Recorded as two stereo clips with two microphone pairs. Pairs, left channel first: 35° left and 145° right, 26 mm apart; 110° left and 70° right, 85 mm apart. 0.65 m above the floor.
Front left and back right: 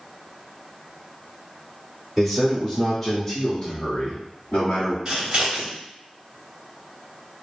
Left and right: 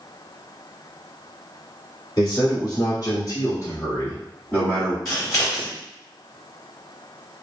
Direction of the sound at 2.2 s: 135° left.